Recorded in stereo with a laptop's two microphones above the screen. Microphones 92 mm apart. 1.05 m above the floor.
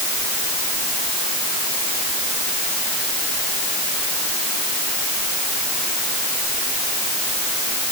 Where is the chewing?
No chewing in this recording.